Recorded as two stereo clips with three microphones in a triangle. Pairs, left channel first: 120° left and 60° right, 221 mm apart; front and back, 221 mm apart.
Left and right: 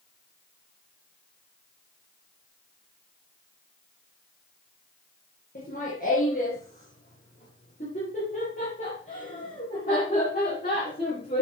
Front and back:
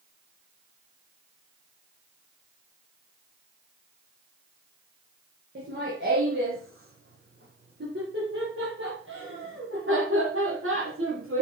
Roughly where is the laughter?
Behind.